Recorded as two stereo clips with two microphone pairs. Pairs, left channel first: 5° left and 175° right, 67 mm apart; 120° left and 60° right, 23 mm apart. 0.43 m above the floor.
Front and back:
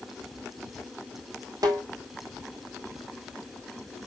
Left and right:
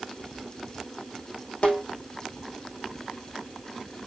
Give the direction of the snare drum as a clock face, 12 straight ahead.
7 o'clock.